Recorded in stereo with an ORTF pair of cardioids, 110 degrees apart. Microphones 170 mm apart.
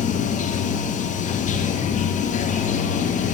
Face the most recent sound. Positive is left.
turn(degrees=45)